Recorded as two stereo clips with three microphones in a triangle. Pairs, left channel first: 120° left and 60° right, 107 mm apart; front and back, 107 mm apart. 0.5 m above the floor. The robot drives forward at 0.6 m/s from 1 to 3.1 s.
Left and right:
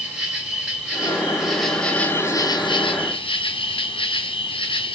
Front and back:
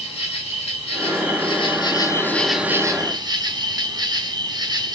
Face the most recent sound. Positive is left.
turn(degrees=135)